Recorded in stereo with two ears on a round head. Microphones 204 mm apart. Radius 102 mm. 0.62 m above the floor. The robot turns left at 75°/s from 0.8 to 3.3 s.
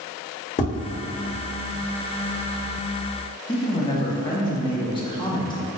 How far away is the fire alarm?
No fire alarm in this recording.